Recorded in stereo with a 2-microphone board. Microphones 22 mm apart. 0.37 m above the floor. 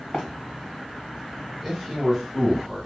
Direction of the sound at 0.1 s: 35° left (ahead or behind).